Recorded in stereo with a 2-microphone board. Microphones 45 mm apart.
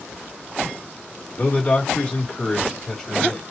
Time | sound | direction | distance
1.4 | a man speaking | 35° left (ahead or behind) | 2.5 m